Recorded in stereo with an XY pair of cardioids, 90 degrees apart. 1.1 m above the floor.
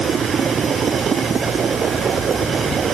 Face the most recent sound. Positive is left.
No sound to turn to.